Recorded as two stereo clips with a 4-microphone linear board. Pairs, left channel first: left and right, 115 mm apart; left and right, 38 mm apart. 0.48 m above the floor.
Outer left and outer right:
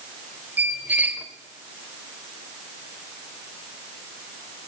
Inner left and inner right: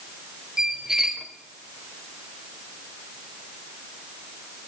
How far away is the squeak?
About 1.3 m.